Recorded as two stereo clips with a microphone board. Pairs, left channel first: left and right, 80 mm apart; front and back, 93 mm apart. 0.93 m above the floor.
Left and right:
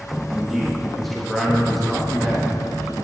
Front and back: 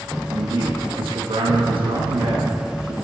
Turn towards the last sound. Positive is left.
turn(degrees=180)